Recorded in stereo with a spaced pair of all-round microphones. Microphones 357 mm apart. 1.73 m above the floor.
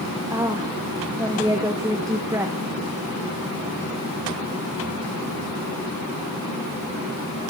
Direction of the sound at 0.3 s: 10° right (ahead or behind).